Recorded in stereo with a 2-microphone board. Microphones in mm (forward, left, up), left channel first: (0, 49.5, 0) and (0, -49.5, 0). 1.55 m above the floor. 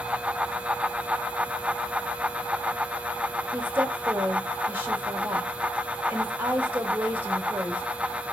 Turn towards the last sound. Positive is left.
turn(degrees=-20)  # may be behind; listen again after turning